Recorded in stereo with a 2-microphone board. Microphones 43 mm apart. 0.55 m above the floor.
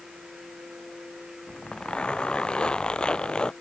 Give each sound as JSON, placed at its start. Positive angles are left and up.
{"t": 1.5, "sound": "a zipper", "side_deg": 25}